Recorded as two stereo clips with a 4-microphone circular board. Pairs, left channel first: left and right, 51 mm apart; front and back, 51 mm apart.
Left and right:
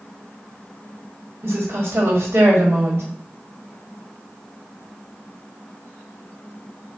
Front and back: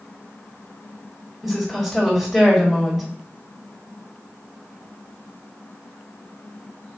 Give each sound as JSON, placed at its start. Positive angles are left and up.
{"t": 1.4, "sound": "a woman speaking", "azimuth_deg": -90, "distance_m": 1.3}